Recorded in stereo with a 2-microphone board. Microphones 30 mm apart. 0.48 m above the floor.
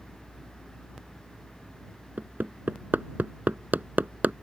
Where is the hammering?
80° right.